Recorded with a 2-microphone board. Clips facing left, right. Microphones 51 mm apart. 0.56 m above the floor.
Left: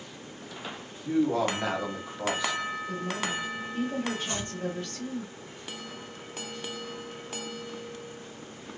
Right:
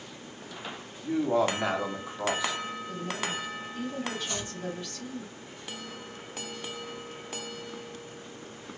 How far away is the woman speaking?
About 1.4 m.